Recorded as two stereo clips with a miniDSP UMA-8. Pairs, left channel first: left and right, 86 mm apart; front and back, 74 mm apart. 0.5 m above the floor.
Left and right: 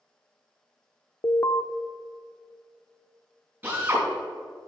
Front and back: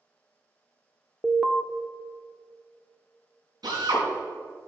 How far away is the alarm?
About 0.6 m.